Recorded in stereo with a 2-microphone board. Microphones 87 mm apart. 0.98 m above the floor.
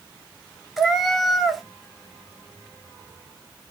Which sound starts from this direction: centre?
A cat meowing, at 0.8 s.